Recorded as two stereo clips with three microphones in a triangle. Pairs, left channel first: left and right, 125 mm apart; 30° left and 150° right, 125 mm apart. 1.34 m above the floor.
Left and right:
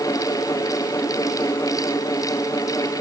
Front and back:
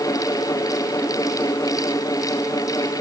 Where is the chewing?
I don't hear chewing.